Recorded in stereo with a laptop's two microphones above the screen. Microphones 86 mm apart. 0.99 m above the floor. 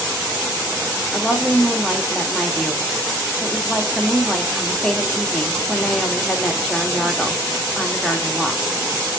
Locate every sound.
1.1 s a woman speaking: 5° left (ahead or behind), 1.6 m